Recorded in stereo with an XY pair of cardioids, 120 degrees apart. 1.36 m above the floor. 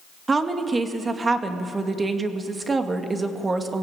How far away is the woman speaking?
About 2 m.